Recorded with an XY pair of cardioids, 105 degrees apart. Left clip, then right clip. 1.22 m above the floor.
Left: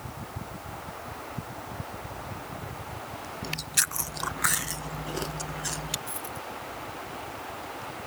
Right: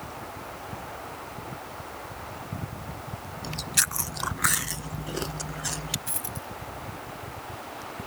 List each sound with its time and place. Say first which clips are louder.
3.4 s chewing: right 2 dB; 10° right
6.1 s a dropped coin: even; 45° right